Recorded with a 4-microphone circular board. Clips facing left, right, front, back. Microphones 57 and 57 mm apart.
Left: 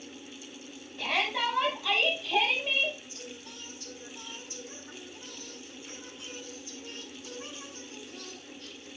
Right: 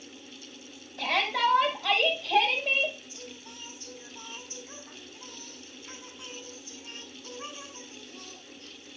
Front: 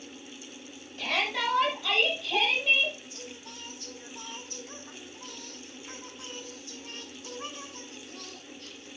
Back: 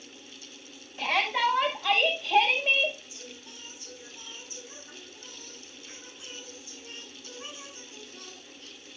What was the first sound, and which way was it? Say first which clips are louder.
A shout: right 3 dB, back 4 dB; 110° right.